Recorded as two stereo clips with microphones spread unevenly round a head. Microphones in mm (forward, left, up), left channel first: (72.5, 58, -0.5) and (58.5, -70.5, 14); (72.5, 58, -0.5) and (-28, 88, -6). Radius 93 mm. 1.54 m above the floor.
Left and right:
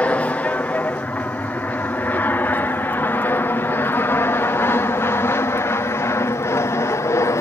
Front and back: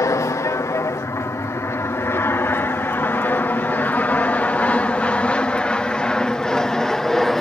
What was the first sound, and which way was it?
An aircraft, 15° left.